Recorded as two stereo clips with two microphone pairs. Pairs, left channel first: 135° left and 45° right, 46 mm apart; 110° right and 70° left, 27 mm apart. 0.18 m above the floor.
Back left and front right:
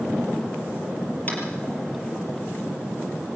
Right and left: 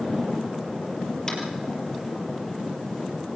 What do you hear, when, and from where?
1.3 s tapping: 175° right, 5 m